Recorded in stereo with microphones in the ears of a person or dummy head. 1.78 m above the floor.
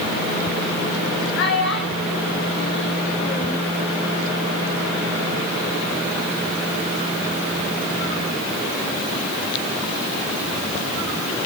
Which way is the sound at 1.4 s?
60° left (ahead or behind).